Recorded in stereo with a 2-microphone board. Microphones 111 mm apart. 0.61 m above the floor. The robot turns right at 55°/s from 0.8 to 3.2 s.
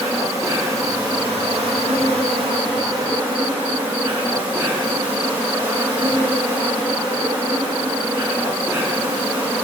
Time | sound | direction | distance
0.0 | an insect | 150° right | 2 m